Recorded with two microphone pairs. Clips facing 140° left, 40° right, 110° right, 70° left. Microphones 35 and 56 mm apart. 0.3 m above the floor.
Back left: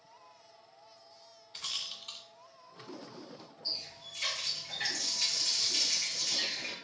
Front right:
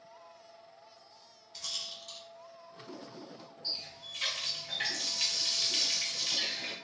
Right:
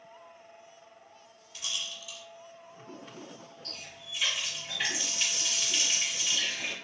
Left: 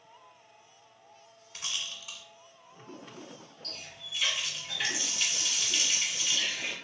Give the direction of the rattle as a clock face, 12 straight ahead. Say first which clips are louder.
Back left 2 dB, even; 9 o'clock.